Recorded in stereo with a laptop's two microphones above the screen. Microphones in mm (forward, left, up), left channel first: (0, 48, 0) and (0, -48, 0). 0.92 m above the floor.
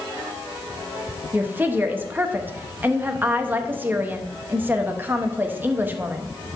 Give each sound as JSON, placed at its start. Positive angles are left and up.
{"t": 1.3, "sound": "a woman speaking", "side_deg": -20, "distance_m": 0.8}